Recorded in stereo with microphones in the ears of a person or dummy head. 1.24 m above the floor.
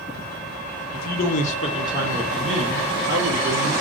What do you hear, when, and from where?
0.9 s a man speaking: 60° left (ahead or behind), 0.8 m; by 3.7 s 25° right (ahead or behind), 1.3 m